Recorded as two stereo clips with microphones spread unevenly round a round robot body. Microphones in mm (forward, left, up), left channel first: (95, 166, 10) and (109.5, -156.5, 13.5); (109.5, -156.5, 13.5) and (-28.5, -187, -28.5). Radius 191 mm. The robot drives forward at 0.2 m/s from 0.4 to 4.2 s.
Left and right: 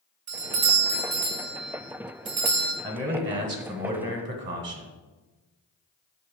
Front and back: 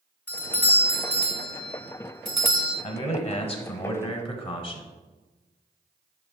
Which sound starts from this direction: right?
A doorbell, at 0.3 s.